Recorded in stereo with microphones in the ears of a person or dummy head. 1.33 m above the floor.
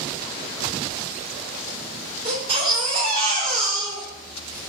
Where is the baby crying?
25° right (ahead or behind), 0.8 m.